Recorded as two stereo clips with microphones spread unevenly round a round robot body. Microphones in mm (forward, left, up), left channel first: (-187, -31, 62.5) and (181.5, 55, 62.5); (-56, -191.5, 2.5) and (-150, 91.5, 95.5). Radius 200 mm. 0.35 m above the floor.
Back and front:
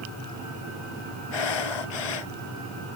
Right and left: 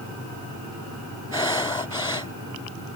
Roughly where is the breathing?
Behind right.